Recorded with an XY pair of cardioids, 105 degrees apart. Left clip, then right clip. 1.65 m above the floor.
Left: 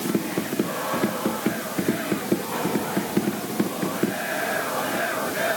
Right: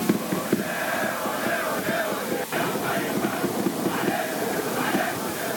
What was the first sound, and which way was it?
Only background noise.